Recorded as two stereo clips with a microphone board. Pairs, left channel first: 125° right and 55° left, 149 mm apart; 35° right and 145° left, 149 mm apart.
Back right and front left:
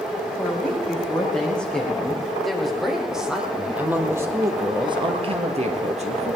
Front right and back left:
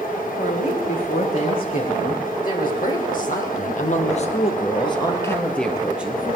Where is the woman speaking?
45° right, 7 m; by 6.4 s 75° left, 2.5 m.